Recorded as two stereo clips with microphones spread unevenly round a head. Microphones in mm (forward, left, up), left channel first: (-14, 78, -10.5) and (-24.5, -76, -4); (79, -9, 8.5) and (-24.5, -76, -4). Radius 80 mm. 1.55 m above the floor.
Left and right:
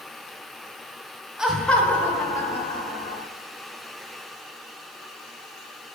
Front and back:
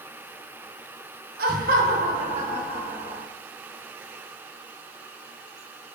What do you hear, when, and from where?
1.4 s laughter: straight behind, 1.0 m; by 3.2 s 150° left, 2.5 m